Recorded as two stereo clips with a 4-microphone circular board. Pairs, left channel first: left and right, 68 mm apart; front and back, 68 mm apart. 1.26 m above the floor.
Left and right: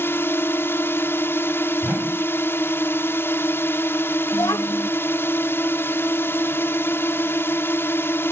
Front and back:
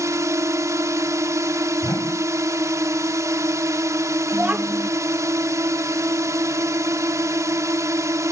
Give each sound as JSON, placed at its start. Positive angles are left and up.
{"t": 0.0, "sound": "a drone", "azimuth_deg": 140}
{"t": 1.8, "sound": "a whoosh", "azimuth_deg": -25}
{"t": 4.3, "sound": "a child speaking", "azimuth_deg": 115}